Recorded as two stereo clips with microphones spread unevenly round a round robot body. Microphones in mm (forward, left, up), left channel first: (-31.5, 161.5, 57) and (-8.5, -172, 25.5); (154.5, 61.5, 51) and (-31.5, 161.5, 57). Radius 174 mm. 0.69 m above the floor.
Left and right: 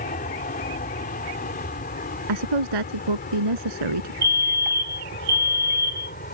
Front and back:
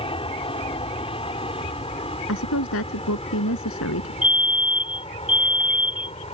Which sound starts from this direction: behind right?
A fire alarm, at 4.2 s.